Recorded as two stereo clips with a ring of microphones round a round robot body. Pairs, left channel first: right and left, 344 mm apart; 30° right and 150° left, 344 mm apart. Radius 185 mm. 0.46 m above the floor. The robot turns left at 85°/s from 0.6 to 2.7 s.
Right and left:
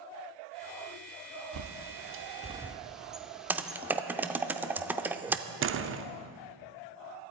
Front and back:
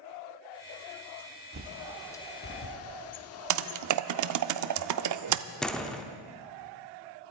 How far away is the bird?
About 0.9 m.